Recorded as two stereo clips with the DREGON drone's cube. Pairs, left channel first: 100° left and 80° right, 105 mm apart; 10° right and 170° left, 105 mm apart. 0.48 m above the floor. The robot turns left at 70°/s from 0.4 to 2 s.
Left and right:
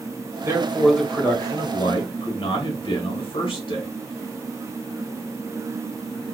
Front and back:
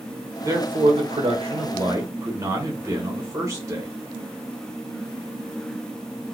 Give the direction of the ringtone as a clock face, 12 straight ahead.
No ringtone in this recording.